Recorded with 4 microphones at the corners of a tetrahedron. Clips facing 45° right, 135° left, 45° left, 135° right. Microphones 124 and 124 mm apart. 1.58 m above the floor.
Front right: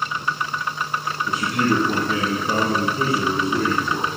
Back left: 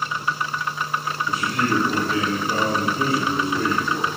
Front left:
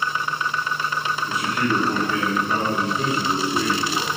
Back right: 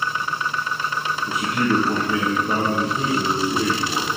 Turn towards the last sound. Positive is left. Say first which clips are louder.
# front right 2 dB, back right 3 dB
turn(degrees=-80)